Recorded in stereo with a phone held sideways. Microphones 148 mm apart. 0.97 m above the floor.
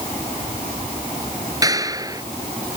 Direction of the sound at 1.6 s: 25° right (ahead or behind).